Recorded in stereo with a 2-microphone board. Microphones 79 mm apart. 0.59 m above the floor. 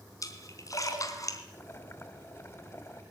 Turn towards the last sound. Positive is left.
turn(degrees=35)  # may be behind; listen again after turning